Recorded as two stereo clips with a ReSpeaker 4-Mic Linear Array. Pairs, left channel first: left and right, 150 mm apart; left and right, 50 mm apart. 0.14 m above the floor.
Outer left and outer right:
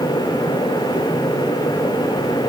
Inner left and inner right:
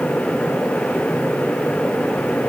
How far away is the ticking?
No ticking in this recording.